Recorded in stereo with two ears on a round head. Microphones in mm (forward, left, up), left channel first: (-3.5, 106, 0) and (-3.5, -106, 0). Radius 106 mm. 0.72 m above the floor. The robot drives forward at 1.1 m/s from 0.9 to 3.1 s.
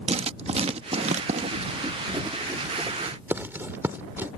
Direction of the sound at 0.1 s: 25° right (ahead or behind).